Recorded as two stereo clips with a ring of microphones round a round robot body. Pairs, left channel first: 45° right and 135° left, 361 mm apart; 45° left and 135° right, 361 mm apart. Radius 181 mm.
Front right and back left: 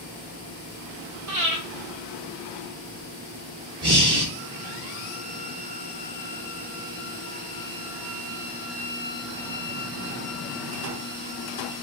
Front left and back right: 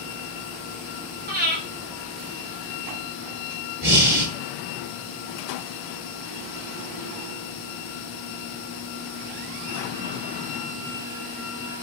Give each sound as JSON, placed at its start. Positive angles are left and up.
{"t": 1.3, "sound": "breathing", "azimuth_deg": 165, "distance_m": 1.5}
{"t": 3.8, "sound": "breathing", "azimuth_deg": -175, "distance_m": 1.9}